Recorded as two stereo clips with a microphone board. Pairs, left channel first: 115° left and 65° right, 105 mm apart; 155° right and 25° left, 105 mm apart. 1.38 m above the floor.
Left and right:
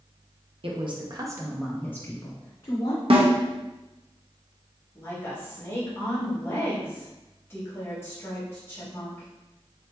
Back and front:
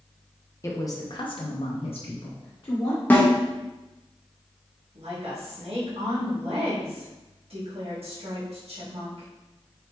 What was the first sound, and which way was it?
A woman speaking, 95° right.